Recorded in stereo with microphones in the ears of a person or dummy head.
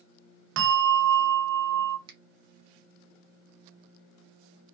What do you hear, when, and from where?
0.6 s a bell: 65° right (ahead or behind), 0.7 m
2.1 s a finger snap: 30° right (ahead or behind), 0.9 m